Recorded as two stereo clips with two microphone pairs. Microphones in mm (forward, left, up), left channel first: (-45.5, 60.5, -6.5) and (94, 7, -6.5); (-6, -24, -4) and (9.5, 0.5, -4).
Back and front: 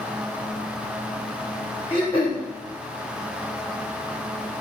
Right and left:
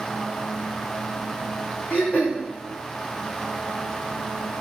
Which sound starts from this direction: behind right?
Throat clearing, at 1.9 s.